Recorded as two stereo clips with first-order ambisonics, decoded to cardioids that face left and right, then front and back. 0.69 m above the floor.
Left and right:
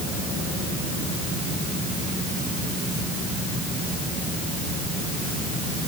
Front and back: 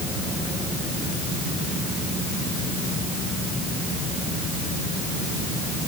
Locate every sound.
Only background noise.